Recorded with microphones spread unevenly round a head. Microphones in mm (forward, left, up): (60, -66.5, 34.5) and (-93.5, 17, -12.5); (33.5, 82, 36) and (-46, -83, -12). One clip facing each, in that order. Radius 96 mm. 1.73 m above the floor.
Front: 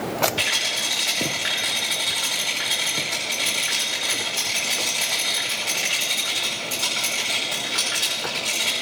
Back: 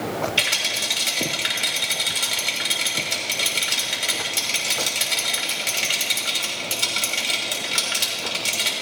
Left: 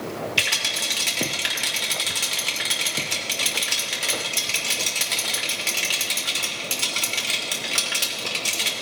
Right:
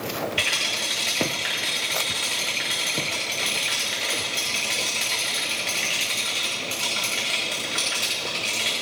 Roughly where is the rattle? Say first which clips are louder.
Even, right 1 dB; left.